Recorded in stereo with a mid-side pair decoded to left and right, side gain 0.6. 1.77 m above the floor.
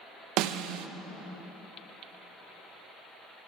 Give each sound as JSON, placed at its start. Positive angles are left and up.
{"t": 0.4, "sound": "a snare drum", "azimuth_deg": -70, "distance_m": 0.5}